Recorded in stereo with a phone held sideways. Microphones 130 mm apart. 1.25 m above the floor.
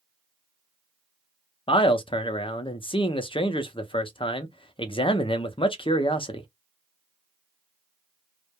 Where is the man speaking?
40° left (ahead or behind), 0.5 m.